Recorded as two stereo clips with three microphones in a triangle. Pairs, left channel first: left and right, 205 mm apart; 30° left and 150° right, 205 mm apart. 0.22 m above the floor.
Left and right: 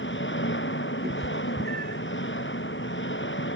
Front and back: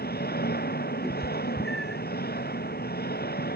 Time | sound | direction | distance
0.0 | an engine running | 70° left | ?
1.0 | a cat meowing | 60° right | ?